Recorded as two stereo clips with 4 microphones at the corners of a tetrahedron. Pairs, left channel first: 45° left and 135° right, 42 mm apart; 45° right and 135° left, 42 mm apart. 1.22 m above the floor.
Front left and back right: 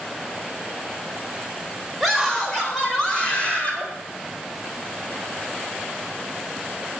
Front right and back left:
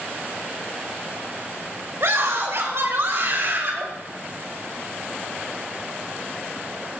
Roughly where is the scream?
Behind left.